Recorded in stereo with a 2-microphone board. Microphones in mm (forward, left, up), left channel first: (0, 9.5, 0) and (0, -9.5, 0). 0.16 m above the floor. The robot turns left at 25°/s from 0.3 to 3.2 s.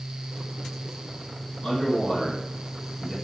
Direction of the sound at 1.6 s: 20° left.